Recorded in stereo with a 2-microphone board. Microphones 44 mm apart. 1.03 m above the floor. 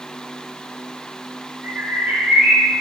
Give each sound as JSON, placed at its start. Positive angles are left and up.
{"t": 1.6, "sound": "a bird", "side_deg": -35, "distance_m": 5.0}